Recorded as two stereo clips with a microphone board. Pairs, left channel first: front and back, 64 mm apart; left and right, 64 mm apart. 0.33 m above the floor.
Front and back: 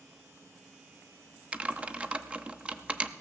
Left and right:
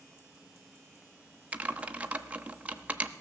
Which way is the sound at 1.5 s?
135° right.